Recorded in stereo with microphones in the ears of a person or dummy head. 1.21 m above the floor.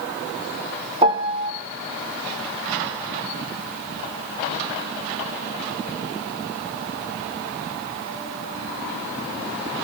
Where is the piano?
30° right (ahead or behind), 0.7 m.